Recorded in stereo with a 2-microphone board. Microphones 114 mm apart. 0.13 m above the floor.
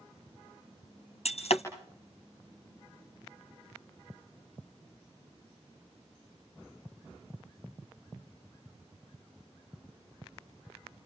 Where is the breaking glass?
65° left (ahead or behind), 2 m.